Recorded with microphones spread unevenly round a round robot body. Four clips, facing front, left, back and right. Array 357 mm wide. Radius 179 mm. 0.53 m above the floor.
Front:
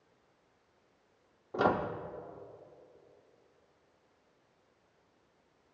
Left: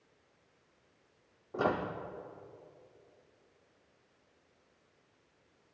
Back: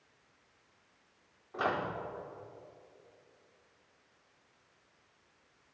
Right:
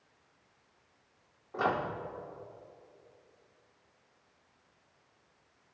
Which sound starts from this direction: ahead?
A microwave, at 1.5 s.